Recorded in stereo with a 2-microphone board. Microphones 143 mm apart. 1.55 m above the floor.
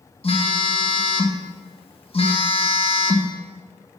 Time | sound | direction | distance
0.2 | a phone buzzing | 40° left (ahead or behind) | 1.0 m